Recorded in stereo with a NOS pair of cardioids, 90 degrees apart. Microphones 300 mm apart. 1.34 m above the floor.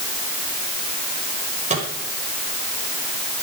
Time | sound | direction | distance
1.7 | a microwave | 25° right | 6 m